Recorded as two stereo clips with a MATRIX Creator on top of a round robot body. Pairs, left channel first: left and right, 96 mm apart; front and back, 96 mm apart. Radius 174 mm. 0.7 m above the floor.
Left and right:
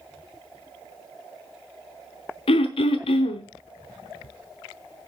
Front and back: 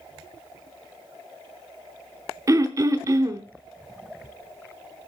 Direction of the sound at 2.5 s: 120° left.